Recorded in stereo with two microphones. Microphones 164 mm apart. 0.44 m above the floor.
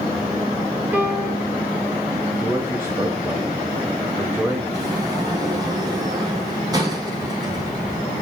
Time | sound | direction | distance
0.9 | a piano | 10° right (ahead or behind) | 2.5 m
2.4 | a man speaking | 15° right (ahead or behind) | 1.9 m
4.7 | a sliding door | 25° right (ahead or behind) | 4.5 m